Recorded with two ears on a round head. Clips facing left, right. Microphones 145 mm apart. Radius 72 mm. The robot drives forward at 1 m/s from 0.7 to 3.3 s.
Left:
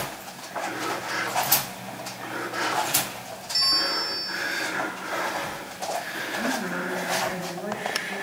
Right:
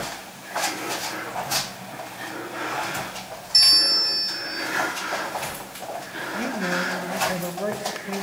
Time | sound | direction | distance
3.5 | a bell | 30° right (ahead or behind) | 0.6 m
6.3 | a woman speaking | 70° right (ahead or behind) | 2.5 m